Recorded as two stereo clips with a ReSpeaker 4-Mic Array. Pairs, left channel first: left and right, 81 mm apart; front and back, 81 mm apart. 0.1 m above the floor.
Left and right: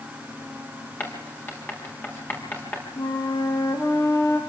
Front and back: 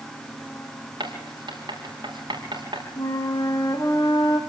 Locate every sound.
1.0 s writing: 155° left, 6.5 m
3.0 s a flute: 45° left, 3 m